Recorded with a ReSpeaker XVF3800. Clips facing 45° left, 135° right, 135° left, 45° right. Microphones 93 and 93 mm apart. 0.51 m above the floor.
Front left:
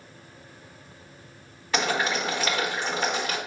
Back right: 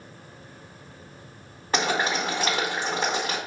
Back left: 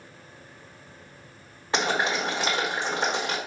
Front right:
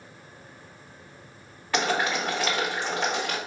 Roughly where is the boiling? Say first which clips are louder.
Back right 1 dB, even; behind.